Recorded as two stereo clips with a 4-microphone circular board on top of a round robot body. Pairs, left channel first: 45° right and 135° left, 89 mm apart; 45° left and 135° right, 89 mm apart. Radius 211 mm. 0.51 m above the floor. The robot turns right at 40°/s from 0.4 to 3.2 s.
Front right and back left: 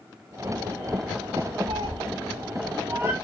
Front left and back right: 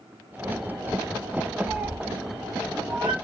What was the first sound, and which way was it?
A cat meowing, 145° left.